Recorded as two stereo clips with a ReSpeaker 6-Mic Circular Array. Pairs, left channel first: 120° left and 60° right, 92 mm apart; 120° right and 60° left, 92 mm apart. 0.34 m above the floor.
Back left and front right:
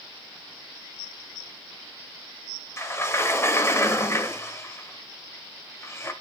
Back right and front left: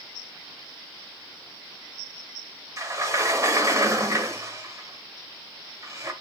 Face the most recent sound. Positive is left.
turn(degrees=85)